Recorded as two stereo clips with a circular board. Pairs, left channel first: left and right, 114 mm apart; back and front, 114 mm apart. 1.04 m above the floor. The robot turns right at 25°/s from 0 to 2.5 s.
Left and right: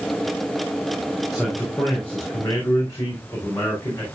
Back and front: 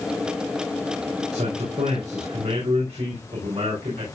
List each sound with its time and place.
1.3 s a man speaking: 5° right, 4 m; by 4.1 s 25° left, 4 m